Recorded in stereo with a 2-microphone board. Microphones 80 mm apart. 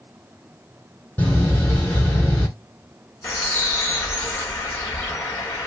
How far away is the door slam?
About 2.5 m.